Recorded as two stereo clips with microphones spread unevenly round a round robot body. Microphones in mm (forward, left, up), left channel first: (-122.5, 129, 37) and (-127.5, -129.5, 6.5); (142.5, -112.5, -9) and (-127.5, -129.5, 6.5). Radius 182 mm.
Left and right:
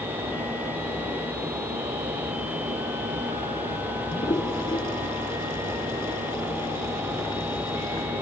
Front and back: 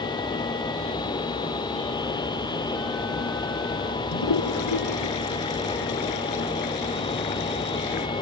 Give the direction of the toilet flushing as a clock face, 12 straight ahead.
12 o'clock.